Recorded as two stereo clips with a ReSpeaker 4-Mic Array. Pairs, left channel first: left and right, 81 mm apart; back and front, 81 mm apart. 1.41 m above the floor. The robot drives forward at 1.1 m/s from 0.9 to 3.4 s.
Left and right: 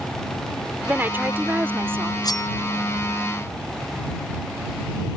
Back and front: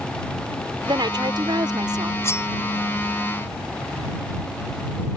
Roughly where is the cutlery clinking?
Behind left.